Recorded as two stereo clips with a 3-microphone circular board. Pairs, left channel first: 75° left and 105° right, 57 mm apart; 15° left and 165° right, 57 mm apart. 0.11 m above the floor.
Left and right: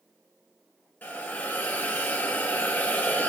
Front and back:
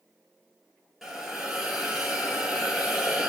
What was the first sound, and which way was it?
A hiss, 115° left.